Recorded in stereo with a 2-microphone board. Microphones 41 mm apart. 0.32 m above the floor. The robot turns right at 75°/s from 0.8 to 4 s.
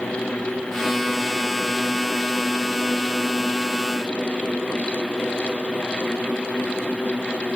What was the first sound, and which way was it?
Only background noise.